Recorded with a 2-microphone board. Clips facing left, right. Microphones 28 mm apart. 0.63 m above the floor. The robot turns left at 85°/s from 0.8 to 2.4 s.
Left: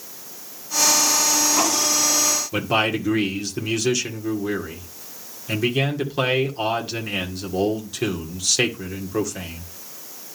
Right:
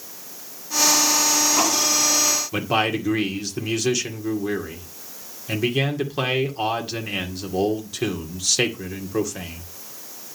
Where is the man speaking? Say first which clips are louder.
Left 2 dB; centre (ahead or behind), 2 m.